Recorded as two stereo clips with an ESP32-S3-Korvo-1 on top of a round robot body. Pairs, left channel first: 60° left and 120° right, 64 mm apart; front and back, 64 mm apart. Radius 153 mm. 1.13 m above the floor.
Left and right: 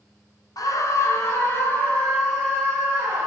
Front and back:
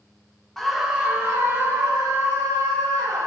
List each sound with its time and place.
0.6 s a scream: 85° left, 0.6 m; by 3.3 s 135° left, 1.9 m